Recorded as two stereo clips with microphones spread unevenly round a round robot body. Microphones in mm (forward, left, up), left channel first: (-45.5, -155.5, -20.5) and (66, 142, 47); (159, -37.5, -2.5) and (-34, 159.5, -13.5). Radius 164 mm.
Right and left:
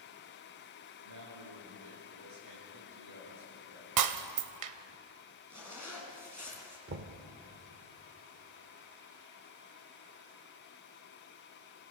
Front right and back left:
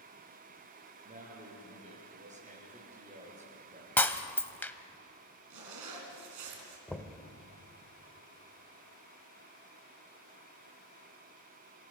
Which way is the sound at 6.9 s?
40° left.